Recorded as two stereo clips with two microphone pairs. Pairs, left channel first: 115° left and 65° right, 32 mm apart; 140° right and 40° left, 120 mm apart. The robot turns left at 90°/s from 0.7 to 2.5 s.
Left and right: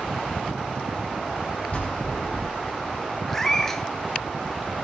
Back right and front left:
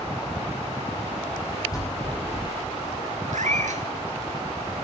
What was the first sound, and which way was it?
A bell, 165° left.